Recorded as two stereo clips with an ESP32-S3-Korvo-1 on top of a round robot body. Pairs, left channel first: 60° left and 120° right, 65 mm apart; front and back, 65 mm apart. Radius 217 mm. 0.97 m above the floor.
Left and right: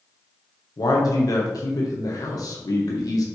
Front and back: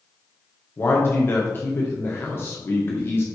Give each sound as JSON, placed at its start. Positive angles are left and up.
{"t": 0.8, "sound": "a man speaking", "azimuth_deg": 50, "distance_m": 1.6}